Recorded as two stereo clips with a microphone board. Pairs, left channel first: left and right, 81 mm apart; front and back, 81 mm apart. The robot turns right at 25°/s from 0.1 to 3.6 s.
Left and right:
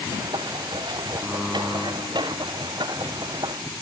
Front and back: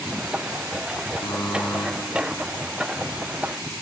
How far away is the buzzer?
About 4 m.